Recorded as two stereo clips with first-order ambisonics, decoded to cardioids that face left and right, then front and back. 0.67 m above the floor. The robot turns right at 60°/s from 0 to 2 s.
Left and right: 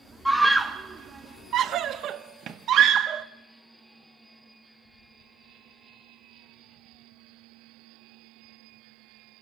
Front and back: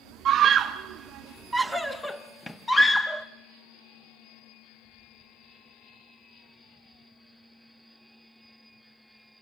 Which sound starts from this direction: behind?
A scream, at 0.2 s.